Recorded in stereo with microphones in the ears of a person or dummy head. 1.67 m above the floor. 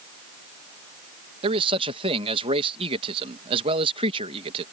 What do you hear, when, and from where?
1.4 s a man speaking: 30° right (ahead or behind)